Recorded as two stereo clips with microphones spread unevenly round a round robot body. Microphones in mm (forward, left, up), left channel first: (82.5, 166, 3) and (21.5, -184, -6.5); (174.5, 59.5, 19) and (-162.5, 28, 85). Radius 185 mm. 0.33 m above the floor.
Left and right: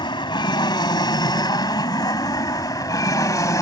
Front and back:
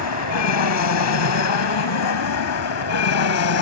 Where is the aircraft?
5° left; by 3.6 s straight ahead.